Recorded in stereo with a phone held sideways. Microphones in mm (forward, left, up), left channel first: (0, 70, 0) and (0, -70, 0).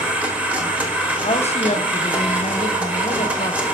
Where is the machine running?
10° right (ahead or behind), 1.2 m.